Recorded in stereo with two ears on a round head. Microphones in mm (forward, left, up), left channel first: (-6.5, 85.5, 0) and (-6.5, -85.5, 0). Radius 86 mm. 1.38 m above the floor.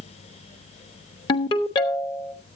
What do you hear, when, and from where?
1.3 s a ringtone: 25° left (ahead or behind), 1.0 m